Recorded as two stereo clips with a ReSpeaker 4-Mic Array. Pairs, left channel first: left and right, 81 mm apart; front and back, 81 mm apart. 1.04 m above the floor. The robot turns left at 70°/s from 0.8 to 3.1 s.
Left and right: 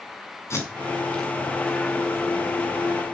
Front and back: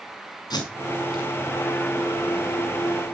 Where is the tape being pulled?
35° left, 5 m; by 1.3 s straight ahead, 5 m.